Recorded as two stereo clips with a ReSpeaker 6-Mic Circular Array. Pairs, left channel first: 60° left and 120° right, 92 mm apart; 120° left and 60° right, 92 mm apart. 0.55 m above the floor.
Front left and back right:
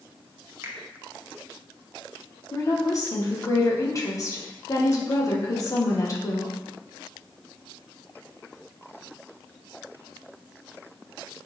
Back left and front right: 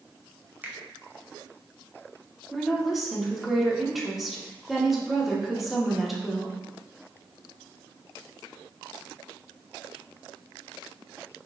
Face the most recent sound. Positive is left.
turn(degrees=30)